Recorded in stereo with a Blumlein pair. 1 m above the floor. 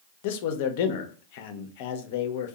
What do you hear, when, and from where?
0.2 s a man speaking: 50° left, 0.5 m